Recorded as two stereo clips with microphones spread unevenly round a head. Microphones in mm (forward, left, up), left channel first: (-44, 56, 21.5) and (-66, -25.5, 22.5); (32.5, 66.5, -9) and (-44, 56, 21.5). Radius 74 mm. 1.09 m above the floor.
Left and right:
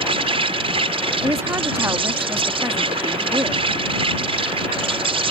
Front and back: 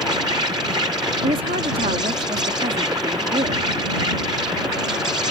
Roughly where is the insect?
Right.